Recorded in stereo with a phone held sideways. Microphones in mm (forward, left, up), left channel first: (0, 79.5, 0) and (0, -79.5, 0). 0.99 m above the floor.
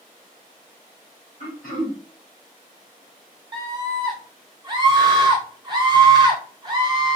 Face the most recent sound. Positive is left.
turn(degrees=-25)  # may be behind; listen again after turning